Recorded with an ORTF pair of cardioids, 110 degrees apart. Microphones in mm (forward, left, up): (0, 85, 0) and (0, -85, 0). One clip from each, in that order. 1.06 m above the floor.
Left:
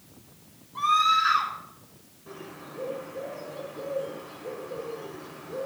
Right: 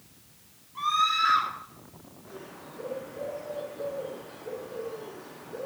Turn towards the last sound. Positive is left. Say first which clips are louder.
# left 3 dB
turn(degrees=50)